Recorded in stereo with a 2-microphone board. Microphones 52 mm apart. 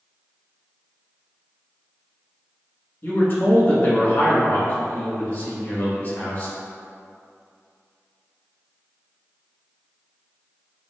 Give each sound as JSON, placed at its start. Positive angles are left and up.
{"t": 3.0, "sound": "a man speaking", "side_deg": 45, "distance_m": 1.8}